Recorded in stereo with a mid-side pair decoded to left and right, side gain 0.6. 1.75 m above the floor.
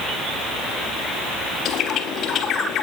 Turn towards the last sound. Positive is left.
turn(degrees=55)